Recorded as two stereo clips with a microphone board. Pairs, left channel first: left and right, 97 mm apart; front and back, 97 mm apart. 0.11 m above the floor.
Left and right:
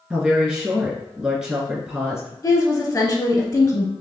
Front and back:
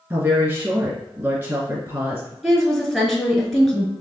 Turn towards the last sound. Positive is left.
turn(degrees=85)